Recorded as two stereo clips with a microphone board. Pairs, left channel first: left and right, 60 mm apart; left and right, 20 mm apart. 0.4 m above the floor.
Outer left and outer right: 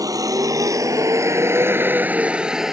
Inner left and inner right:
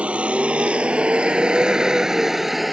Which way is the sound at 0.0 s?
80° right.